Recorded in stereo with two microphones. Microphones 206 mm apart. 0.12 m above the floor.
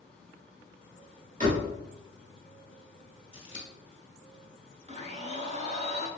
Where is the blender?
35° right (ahead or behind), 0.7 m.